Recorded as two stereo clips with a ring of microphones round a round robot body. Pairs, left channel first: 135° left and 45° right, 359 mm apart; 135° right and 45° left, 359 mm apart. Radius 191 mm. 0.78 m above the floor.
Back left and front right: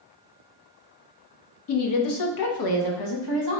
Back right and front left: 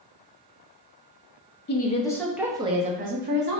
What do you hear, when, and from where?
1.7 s a woman speaking: 170° left, 0.6 m; by 3.6 s 105° left, 1.3 m